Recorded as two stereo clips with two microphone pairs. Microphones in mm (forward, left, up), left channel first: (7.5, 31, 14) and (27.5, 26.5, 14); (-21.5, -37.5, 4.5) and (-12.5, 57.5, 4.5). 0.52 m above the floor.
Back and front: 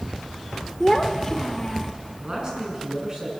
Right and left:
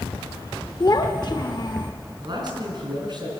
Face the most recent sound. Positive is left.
turn(degrees=45)